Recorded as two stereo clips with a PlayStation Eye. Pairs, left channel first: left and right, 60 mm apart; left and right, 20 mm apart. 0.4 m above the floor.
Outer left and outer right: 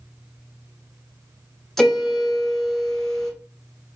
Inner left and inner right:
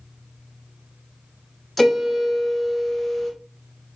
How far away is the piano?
About 1.1 m.